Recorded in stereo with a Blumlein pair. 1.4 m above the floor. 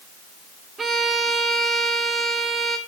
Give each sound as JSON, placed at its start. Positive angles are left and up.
{"t": 0.8, "sound": "a violin", "azimuth_deg": -15, "distance_m": 1.5}